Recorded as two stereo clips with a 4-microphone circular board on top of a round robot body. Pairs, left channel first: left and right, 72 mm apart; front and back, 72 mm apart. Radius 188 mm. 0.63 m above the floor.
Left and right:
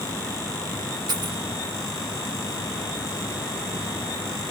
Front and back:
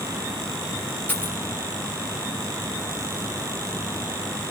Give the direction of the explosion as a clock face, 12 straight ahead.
I don't hear an explosion.